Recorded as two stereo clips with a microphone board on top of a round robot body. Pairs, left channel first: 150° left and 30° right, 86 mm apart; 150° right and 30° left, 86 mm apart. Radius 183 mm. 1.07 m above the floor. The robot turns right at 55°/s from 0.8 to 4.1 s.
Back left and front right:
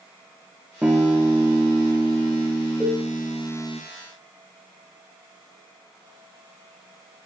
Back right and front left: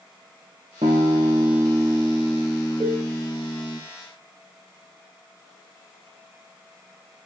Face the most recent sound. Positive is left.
turn(degrees=145)